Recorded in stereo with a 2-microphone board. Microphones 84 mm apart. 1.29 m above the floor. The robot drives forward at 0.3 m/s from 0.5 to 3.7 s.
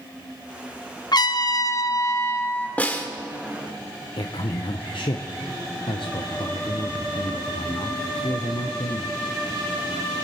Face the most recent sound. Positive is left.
turn(degrees=85)